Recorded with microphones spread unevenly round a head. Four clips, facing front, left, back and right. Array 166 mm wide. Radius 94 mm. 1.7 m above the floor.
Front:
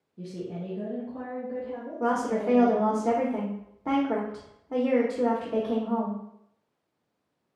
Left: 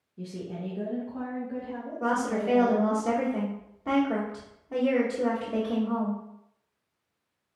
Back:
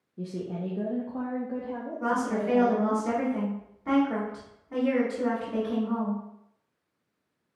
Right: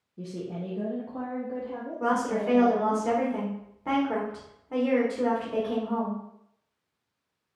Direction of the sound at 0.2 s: 155° right.